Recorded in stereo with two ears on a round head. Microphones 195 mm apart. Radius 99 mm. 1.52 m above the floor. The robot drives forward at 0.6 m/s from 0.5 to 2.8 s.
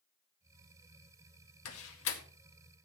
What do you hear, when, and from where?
1.6 s a door slam: 75° left (ahead or behind), 1.9 m; by 2.2 s 70° left (ahead or behind), 2.0 m